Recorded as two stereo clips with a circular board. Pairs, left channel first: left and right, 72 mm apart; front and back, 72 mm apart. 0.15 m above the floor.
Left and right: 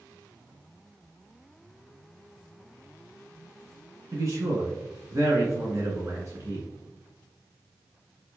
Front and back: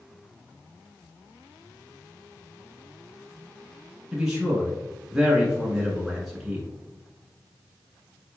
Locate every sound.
4.1 s a man speaking: 100° right, 1.8 m